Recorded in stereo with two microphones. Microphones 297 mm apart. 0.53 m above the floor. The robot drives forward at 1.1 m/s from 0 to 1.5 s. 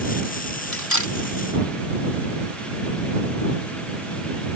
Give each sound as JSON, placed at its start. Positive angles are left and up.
{"t": 0.7, "sound": "cutlery clinking", "side_deg": 75}